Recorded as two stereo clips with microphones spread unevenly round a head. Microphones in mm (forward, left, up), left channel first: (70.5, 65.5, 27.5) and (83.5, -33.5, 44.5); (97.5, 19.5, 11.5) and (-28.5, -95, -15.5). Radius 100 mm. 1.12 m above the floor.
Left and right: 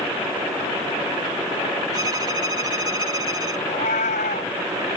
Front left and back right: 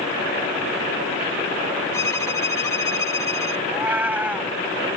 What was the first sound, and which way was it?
A violin, 30° right.